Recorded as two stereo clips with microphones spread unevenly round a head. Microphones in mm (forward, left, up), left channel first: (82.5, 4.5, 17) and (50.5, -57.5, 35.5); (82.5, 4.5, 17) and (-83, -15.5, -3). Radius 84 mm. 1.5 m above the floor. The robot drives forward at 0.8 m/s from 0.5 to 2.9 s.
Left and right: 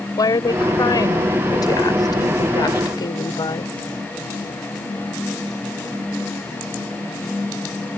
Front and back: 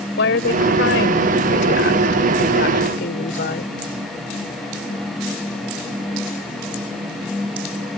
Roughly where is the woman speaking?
Ahead left.